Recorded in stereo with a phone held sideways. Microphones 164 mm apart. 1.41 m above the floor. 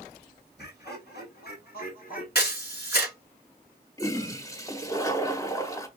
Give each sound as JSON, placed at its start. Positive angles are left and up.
{"t": 0.6, "sound": "laughter", "side_deg": 80, "distance_m": 2.5}
{"t": 2.4, "sound": "a camera shutter", "side_deg": 75, "distance_m": 3.0}
{"t": 4.0, "sound": "a toilet flushing", "side_deg": 20, "distance_m": 1.2}